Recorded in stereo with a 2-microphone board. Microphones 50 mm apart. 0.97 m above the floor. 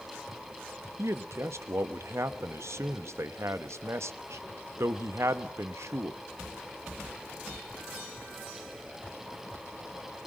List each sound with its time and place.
1.0 s a man speaking: 65° right (ahead or behind), 1.0 m